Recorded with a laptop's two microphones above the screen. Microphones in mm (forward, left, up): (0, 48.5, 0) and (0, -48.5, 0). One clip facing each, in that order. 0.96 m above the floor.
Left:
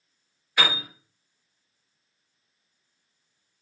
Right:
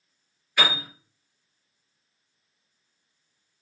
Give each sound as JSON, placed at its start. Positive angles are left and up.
{"t": 0.6, "sound": "a piano", "side_deg": 20, "distance_m": 1.5}